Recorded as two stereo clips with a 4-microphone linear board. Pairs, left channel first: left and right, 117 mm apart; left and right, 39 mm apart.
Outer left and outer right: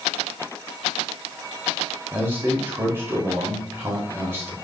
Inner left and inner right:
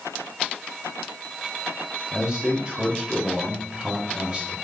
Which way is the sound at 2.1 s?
20° right (ahead or behind).